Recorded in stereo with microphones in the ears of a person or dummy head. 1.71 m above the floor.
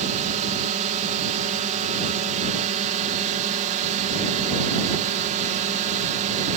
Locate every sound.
0.0 s a drone: 35° right (ahead or behind)